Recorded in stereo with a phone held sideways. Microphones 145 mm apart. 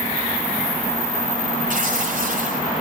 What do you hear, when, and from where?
1.7 s tearing paper: 65° right (ahead or behind), 7 m